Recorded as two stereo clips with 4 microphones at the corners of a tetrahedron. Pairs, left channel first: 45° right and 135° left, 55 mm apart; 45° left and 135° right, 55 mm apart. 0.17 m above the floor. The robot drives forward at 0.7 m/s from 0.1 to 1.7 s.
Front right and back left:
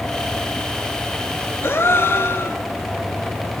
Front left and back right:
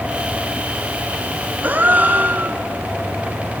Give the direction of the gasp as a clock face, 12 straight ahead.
2 o'clock.